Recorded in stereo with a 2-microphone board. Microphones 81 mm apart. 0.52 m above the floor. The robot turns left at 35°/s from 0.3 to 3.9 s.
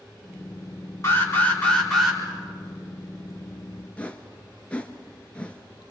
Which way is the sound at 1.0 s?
40° left.